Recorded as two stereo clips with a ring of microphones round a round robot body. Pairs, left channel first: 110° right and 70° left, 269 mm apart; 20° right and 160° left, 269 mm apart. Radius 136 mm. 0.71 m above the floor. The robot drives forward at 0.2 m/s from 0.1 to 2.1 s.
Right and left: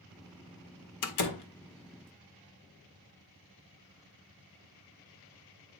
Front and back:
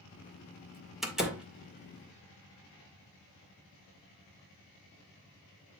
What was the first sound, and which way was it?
A door slam, 115° right.